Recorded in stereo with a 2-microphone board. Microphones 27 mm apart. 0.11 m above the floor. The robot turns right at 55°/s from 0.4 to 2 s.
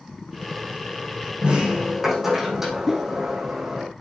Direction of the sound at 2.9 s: 10° right (ahead or behind).